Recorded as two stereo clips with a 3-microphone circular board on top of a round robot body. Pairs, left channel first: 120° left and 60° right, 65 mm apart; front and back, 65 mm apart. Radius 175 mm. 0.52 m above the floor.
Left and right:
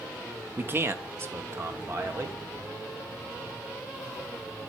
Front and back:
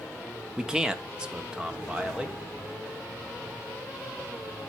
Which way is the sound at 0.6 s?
105° right.